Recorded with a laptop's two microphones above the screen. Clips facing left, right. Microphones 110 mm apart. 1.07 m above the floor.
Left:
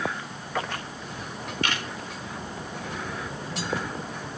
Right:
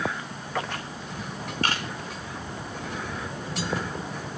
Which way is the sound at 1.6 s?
40° right (ahead or behind).